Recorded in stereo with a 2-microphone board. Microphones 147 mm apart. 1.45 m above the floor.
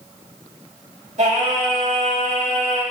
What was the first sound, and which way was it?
Singing, 55° right (ahead or behind).